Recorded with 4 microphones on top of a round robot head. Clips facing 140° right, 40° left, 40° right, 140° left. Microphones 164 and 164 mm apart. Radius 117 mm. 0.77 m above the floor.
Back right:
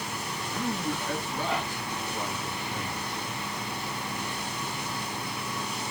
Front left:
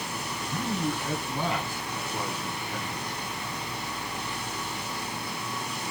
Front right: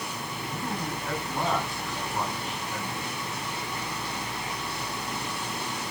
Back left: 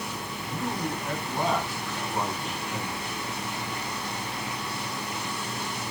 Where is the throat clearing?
No throat clearing in this recording.